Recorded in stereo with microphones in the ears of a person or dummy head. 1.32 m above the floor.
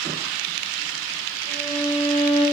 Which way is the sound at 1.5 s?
60° right (ahead or behind).